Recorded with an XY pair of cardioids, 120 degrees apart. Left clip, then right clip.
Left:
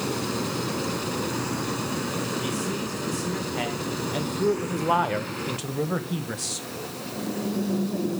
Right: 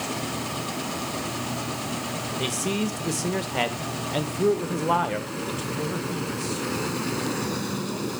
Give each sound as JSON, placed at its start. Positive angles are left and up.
{"t": 2.4, "sound": "a man speaking", "azimuth_deg": -55, "distance_m": 1.6}